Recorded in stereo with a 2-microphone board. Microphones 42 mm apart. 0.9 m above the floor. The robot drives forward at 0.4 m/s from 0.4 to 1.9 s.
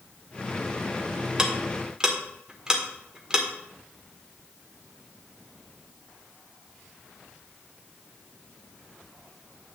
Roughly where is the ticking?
Centre.